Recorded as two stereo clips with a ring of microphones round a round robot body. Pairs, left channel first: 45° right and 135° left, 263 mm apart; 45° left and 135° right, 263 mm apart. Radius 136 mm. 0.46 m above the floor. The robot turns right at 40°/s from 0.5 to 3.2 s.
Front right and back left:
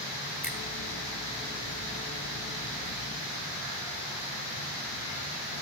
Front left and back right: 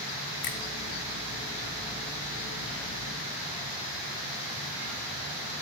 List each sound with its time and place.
0.4 s a finger snap: 55° left, 1.0 m